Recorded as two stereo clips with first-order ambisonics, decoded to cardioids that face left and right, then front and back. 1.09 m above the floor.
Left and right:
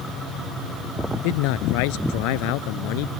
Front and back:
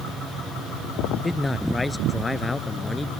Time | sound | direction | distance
1.2 | a man speaking | 85° left | ?